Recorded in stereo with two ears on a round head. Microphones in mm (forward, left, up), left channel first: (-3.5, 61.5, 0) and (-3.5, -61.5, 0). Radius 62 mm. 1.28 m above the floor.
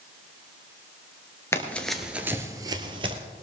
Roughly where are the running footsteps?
Centre.